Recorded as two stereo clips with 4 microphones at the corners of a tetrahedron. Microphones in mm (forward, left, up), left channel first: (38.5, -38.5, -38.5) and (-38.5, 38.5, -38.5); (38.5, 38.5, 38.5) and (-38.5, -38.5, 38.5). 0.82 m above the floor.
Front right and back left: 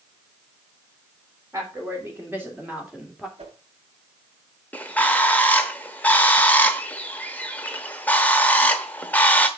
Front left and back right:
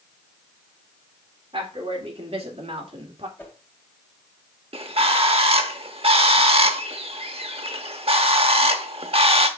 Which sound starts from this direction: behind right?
A bird, at 4.7 s.